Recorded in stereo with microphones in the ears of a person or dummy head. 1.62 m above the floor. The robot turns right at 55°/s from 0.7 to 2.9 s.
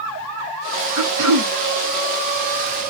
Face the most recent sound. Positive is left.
turn(degrees=0)